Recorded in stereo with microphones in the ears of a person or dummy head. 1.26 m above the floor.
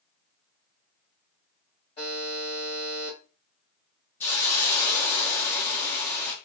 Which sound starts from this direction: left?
A buzzer, at 2.0 s.